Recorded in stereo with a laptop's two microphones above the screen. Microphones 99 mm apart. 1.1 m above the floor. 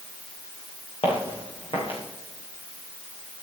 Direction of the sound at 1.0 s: 70° left (ahead or behind).